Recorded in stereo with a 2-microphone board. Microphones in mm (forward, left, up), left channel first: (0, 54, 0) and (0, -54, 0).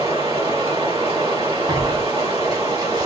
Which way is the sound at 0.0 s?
70° right (ahead or behind).